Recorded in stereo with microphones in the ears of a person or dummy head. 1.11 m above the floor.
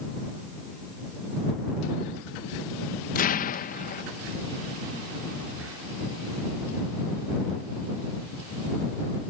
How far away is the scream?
No scream in this recording.